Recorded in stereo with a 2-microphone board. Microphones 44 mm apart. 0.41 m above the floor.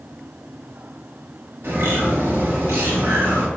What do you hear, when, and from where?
1.6 s a bird: 75° right (ahead or behind), 1.5 m